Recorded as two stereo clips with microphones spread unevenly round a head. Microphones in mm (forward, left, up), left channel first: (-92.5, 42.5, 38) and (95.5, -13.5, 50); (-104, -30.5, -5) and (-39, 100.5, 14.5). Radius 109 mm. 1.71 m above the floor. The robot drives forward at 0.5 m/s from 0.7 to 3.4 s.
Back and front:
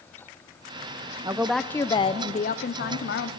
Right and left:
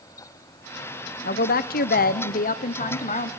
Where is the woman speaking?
85° right, 0.5 m; by 3.3 s 155° right, 1.1 m.